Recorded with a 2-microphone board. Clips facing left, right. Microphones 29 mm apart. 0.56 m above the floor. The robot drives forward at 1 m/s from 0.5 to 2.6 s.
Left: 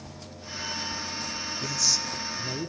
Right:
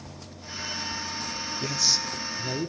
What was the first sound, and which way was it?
A man speaking, 25° right (ahead or behind).